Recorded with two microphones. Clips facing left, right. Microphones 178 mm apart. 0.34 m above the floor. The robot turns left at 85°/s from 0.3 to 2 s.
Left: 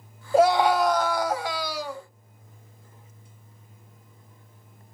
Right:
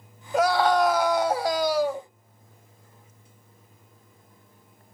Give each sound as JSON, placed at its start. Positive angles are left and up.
{"t": 0.3, "sound": "a scream", "azimuth_deg": 40, "distance_m": 1.6}